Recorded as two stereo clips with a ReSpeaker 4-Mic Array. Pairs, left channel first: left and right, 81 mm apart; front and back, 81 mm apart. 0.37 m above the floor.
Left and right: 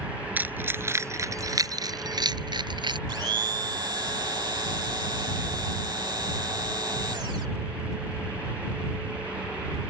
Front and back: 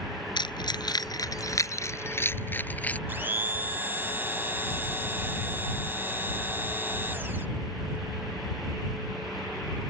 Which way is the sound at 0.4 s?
20° right.